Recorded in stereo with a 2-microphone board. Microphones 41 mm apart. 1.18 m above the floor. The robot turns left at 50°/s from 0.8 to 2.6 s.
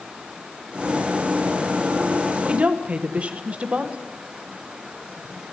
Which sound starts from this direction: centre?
A woman speaking, at 2.4 s.